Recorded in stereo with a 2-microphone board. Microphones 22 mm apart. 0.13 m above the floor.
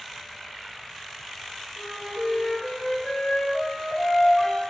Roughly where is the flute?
Left.